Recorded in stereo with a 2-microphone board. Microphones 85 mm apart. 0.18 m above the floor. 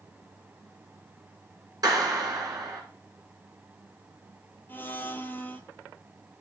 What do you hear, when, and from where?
1.8 s a clap: 50° right (ahead or behind), 2 m
4.7 s a blender: 25° left (ahead or behind), 0.7 m